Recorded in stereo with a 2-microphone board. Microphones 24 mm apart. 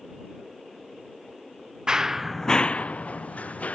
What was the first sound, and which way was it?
Running footsteps, 35° right (ahead or behind).